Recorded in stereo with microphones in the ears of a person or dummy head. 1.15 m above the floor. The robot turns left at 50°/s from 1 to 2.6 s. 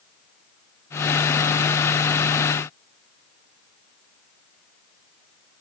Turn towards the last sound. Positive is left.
No sound to turn to.